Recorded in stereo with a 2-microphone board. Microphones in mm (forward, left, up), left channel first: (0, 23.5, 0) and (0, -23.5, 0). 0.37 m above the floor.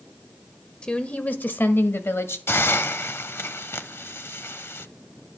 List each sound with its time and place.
0.8 s a woman speaking: 20° left (ahead or behind), 1.2 m; by 2.4 s 60° left (ahead or behind), 1.8 m
2.5 s a hiss: 60° left (ahead or behind), 0.8 m